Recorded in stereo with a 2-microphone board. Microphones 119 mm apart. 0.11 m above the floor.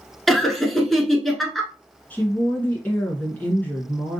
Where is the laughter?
Centre (ahead or behind), 1.1 m.